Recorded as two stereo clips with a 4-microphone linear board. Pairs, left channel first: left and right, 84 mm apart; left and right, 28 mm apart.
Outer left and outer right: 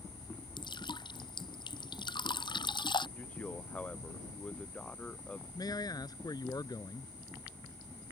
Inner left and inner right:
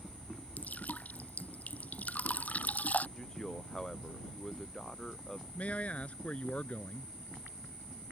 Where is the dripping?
65° left (ahead or behind).